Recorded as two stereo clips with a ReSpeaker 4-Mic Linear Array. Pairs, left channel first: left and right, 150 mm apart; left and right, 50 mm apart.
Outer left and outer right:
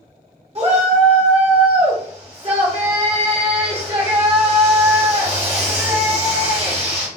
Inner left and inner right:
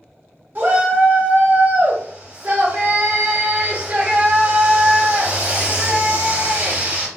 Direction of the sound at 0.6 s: 45° right (ahead or behind).